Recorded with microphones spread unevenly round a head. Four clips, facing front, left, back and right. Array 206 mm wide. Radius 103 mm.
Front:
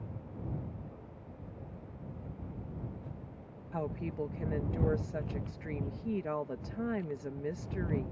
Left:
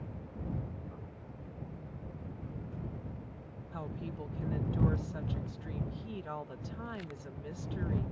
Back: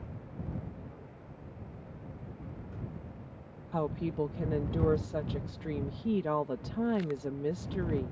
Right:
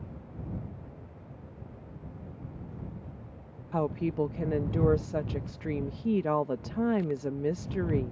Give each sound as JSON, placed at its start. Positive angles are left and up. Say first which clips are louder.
{"t": 3.7, "sound": "a woman speaking", "louder": "right 14 dB, back 5 dB", "azimuth_deg": -110}